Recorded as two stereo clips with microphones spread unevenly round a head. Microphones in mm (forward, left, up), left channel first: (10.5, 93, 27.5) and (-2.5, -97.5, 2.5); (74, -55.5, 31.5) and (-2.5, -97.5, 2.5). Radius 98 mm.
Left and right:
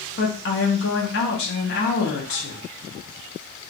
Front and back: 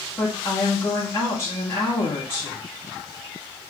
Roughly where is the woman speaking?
Left.